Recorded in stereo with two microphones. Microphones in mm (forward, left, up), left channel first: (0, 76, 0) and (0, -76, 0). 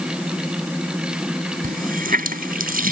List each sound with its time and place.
1.6 s a running tap: 75° right (ahead or behind)